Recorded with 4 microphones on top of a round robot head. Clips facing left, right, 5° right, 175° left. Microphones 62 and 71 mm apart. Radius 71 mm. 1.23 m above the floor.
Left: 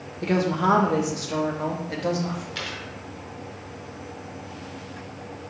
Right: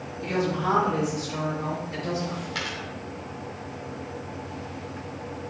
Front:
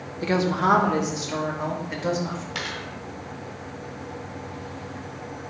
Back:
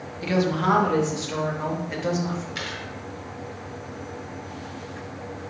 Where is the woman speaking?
50° left, 1.4 m; by 2.5 s 85° left, 2 m.